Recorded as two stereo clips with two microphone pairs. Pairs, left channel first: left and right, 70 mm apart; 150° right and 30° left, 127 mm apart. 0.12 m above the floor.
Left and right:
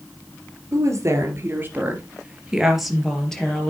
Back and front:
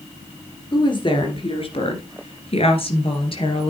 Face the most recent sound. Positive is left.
turn(degrees=170)